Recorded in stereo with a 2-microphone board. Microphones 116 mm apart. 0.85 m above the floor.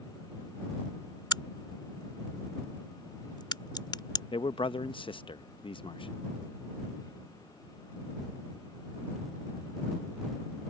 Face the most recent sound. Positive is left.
turn(degrees=45)  # may be behind; listen again after turning